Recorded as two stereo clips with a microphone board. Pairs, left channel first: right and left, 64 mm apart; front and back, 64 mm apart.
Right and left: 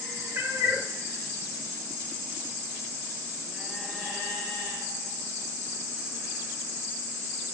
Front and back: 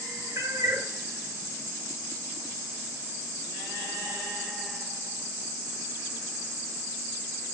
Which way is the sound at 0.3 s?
140° left.